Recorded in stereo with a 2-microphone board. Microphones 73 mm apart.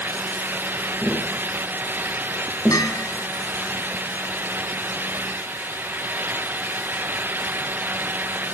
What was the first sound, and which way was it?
Tapping, centre (ahead or behind).